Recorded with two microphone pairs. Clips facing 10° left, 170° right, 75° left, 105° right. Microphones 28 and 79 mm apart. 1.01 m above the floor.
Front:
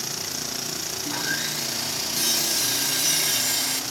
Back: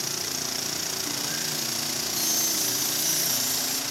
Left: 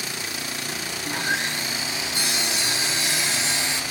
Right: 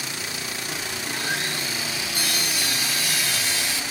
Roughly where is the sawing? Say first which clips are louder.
Front 3 dB, left 3 dB; ahead.